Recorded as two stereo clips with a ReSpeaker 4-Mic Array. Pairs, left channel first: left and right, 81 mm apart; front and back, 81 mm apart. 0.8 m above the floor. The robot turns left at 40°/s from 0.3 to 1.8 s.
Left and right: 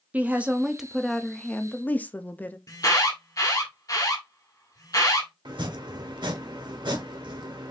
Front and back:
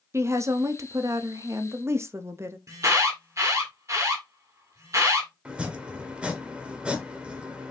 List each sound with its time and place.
0.1 s a woman speaking: 150° right, 0.5 m; by 2.6 s 150° left, 0.5 m
2.7 s an alarm: 130° left, 1.4 m
5.5 s chopping: 105° right, 1.1 m